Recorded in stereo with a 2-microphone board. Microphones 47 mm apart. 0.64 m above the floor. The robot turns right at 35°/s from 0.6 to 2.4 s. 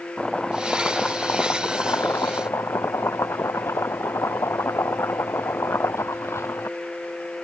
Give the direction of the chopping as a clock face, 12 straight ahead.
11 o'clock.